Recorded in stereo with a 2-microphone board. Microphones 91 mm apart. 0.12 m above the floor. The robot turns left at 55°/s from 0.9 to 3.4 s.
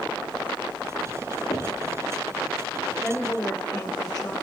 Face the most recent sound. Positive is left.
turn(degrees=15)  # may be behind; listen again after turning